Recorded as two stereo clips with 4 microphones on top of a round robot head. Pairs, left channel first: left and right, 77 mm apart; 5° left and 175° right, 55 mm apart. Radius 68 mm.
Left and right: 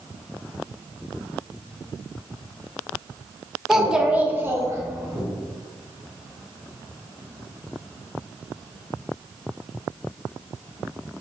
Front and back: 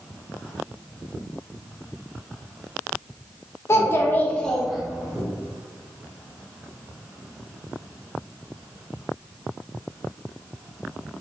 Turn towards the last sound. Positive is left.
turn(degrees=-120)